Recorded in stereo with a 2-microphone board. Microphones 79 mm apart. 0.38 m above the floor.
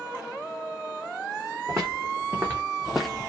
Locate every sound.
1.7 s footsteps: 40° right (ahead or behind), 1.2 m; by 3.3 s 15° left (ahead or behind), 0.6 m